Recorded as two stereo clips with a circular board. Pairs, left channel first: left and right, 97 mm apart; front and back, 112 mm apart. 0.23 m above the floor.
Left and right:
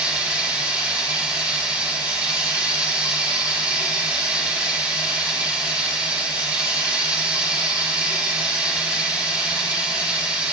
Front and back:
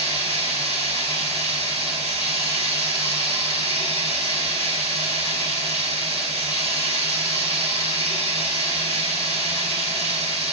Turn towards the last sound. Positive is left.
turn(degrees=-165)